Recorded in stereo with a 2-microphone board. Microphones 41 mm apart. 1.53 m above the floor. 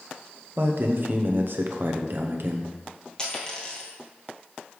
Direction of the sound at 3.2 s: 20° left (ahead or behind).